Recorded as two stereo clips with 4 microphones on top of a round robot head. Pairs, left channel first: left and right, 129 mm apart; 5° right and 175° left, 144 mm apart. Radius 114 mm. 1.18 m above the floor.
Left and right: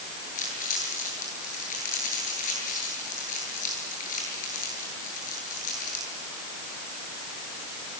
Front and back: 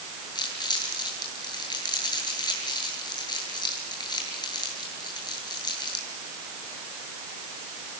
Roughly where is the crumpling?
Ahead left.